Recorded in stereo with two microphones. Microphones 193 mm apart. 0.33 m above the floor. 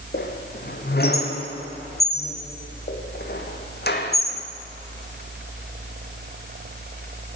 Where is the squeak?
55° left (ahead or behind), 1.4 m.